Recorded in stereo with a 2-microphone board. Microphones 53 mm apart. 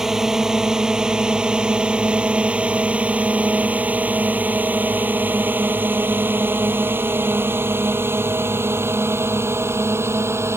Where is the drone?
10° right (ahead or behind); by 10.6 s 55° right (ahead or behind).